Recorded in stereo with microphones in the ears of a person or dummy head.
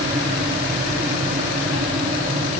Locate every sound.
Only background noise.